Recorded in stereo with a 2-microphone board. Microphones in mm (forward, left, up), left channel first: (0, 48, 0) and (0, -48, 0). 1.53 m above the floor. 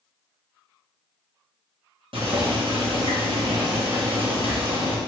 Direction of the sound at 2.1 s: 65° right (ahead or behind).